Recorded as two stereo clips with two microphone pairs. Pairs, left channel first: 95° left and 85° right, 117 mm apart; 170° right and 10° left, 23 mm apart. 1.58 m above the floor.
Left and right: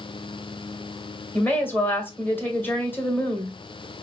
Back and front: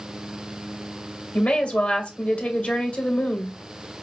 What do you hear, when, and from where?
1.3 s a woman speaking: 170° left, 1.6 m